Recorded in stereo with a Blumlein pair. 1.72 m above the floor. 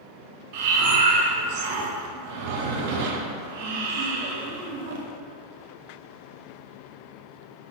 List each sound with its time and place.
0.5 s breathing: 50° right, 1.1 m